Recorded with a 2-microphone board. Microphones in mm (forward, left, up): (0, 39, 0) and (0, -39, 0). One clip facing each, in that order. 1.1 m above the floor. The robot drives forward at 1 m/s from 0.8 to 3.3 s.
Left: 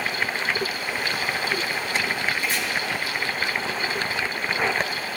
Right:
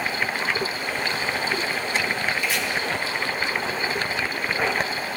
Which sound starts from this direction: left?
Chopping, at 2.4 s.